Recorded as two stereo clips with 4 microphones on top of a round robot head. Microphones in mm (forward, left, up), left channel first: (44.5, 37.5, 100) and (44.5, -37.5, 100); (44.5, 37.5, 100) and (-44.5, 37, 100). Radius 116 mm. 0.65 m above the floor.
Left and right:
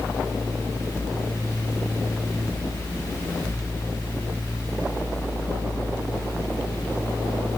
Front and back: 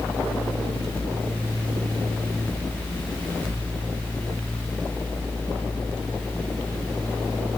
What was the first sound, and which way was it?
Only background noise.